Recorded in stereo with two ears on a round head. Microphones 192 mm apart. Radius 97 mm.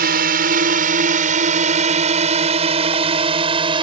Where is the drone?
45° right (ahead or behind); by 3.8 s 25° right (ahead or behind).